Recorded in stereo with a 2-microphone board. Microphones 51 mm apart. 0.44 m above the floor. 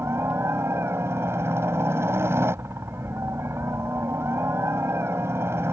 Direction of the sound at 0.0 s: 55° right (ahead or behind).